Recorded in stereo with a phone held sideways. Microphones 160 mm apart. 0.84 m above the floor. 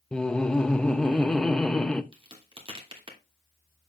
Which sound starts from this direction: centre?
Laughter, at 0.1 s.